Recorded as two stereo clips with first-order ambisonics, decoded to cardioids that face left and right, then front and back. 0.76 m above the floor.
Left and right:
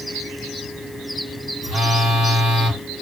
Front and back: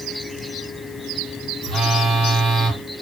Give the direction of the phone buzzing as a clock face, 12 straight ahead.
4 o'clock.